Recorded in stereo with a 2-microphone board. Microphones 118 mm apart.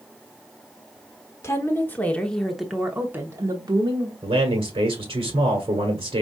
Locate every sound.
1.4 s a woman speaking: 25° left (ahead or behind), 1.2 m; by 4.1 s 40° right (ahead or behind), 1.1 m
4.2 s a man speaking: 50° right (ahead or behind), 1.3 m